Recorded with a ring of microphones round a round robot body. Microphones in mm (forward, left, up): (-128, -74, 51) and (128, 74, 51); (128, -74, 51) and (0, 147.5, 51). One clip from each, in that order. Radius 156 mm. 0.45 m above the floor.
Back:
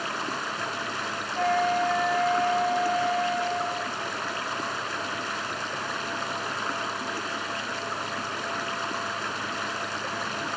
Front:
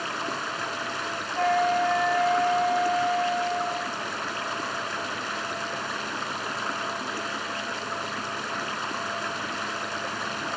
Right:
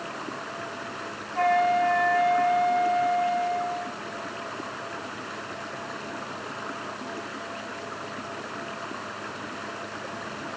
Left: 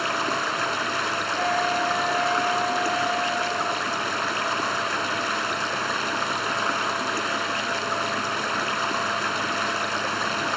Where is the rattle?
No rattle in this recording.